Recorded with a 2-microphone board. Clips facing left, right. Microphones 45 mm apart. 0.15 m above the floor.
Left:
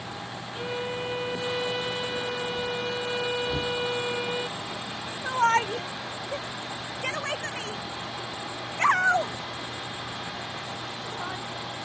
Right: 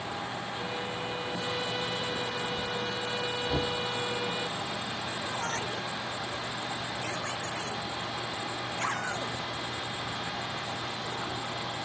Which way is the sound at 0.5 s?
30° left (ahead or behind).